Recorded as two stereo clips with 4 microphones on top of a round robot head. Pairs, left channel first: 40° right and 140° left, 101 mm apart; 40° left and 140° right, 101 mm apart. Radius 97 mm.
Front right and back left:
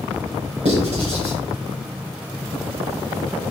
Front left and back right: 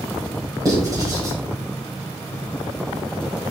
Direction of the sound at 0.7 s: 165° left.